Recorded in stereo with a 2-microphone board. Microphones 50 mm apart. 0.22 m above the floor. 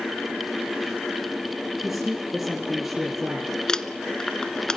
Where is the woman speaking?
5° right (ahead or behind), 3.5 m.